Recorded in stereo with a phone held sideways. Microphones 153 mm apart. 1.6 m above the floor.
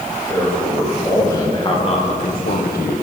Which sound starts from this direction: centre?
A man speaking, at 0.3 s.